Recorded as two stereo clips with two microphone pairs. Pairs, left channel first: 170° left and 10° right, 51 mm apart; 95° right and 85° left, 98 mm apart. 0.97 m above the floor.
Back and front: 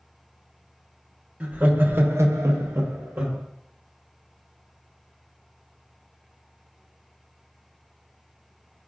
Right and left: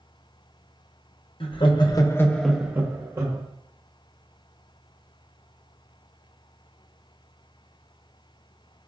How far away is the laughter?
About 0.8 m.